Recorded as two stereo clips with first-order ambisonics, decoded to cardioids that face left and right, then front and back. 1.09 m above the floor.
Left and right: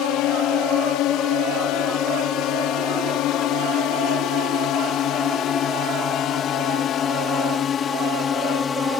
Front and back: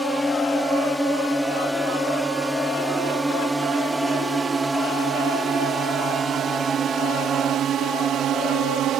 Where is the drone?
80° left; by 9.0 s 150° left.